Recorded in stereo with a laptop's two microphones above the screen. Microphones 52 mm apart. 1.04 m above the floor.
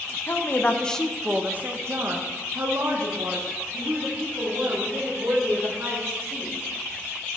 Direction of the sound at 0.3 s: 45° left (ahead or behind).